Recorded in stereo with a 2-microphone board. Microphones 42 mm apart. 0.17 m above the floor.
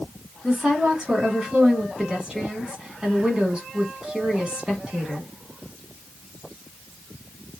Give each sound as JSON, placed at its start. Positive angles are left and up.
{"t": 0.4, "sound": "a woman speaking", "side_deg": -20, "distance_m": 1.3}